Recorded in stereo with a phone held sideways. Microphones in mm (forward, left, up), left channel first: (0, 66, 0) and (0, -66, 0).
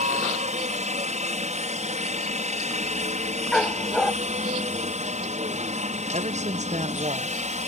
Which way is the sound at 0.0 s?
60° right (ahead or behind).